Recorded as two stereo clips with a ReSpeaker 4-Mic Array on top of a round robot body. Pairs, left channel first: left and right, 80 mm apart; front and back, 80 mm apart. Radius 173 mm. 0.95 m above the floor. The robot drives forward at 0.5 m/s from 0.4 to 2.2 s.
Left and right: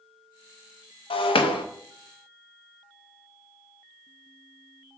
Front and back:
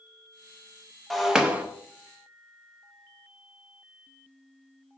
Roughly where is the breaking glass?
Left.